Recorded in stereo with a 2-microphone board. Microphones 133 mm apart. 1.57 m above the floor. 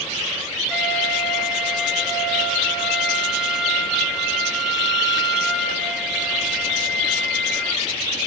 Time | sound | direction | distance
0.7 | a flute | 5° right (ahead or behind) | 4 m